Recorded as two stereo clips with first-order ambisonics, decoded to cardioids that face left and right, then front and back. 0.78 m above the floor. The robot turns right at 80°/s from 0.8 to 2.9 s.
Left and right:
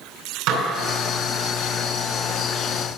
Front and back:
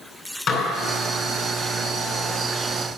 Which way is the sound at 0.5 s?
60° right.